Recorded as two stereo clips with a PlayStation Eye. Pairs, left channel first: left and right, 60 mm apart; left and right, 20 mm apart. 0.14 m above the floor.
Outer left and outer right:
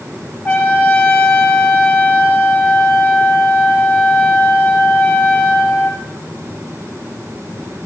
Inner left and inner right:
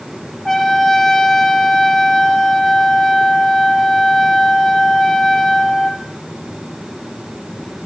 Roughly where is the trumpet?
Left.